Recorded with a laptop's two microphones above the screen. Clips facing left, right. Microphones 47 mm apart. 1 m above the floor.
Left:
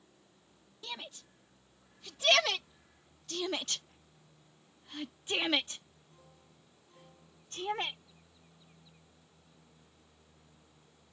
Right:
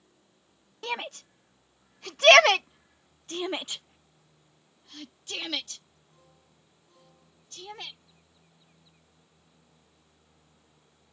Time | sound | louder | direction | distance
0.8 | a shout | right 11 dB | 70° right (ahead or behind) | ?